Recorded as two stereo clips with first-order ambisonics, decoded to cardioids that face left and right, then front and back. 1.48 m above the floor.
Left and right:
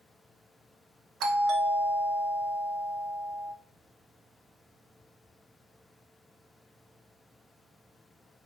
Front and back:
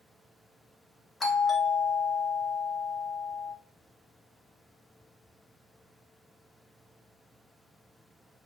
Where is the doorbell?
70° right, 0.6 m.